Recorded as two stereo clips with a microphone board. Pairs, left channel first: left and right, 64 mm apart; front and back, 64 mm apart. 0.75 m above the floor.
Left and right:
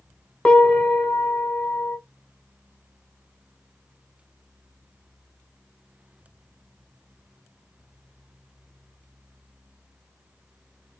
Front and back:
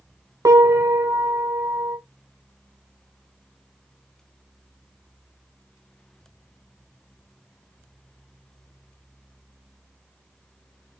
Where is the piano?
160° left, 1.2 m.